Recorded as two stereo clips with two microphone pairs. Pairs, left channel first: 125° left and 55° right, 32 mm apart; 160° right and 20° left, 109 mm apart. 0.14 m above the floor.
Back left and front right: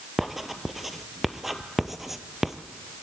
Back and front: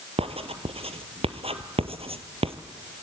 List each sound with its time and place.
0.2 s writing: 30° left, 1.4 m